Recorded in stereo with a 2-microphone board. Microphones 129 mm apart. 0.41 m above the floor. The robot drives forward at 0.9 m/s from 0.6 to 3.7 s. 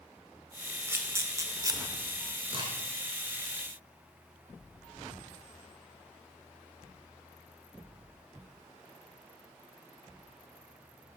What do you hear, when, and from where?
0.9 s a camera shutter: 20° right (ahead or behind), 1.9 m; by 1.8 s 25° right (ahead or behind), 1.3 m
2.5 s a crack: 40° right (ahead or behind), 4 m; by 2.7 s 35° right (ahead or behind), 4.5 m